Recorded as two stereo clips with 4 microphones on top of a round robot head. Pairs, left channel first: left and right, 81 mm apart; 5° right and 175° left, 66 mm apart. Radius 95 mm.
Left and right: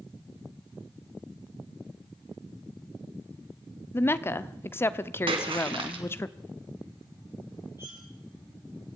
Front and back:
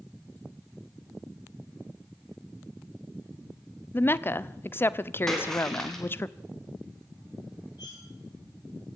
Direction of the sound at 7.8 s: 30° right.